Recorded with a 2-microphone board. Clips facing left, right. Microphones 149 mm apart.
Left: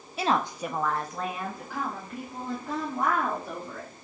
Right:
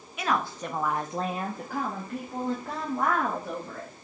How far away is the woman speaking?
About 0.6 m.